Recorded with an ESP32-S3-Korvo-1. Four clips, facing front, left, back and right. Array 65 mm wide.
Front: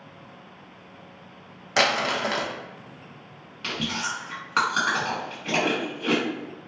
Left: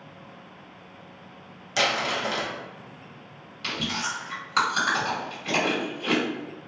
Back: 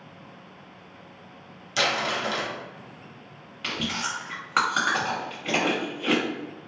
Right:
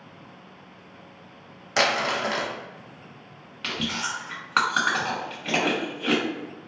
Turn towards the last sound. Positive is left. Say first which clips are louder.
# even, front 1 dB
turn(degrees=-105)